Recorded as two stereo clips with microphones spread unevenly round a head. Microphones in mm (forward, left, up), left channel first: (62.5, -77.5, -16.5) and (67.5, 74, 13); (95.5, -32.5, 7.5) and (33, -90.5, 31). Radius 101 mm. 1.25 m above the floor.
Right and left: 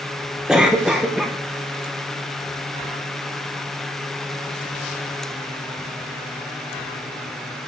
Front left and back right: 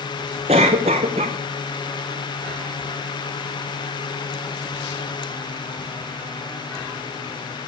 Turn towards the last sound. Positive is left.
turn(degrees=175)